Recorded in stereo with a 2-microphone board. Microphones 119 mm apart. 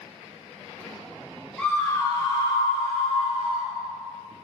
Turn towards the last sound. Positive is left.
turn(degrees=75)  # may be behind; listen again after turning